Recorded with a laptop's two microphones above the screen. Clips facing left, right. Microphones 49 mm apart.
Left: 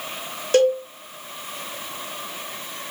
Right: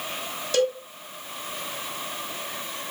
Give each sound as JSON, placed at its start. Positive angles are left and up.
{"t": 0.5, "sound": "a cowbell", "side_deg": 40, "distance_m": 1.0}